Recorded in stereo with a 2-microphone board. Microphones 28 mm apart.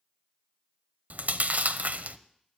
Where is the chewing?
70° right (ahead or behind), 0.7 m.